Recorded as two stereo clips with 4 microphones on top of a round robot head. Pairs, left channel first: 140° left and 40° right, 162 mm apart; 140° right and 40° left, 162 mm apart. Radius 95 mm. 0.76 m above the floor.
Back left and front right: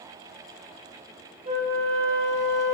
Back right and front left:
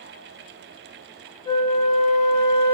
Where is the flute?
80° right, 1.1 m.